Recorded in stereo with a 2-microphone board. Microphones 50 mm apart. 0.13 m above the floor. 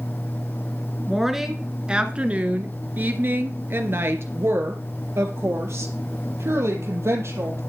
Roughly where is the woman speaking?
Centre.